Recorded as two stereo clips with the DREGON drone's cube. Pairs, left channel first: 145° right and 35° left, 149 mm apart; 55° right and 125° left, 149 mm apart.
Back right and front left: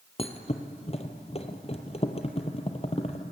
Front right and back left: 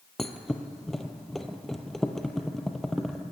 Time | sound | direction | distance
0.2 | a thud | 145° right | 2 m